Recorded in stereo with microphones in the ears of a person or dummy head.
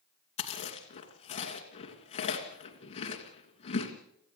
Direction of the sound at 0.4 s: 30° left (ahead or behind).